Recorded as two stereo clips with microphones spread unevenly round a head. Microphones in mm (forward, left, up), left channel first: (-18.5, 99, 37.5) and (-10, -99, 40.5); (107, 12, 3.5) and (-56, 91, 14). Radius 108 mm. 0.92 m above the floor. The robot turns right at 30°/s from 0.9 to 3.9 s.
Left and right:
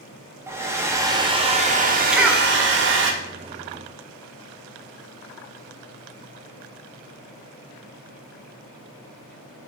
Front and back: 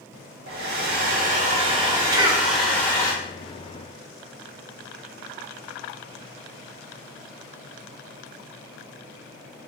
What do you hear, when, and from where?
0.5 s a hair dryer: 165° right, 0.5 m; by 3.1 s 100° right, 0.5 m
2.1 s a cough: 170° right, 0.5 m; by 2.5 s 160° right, 0.5 m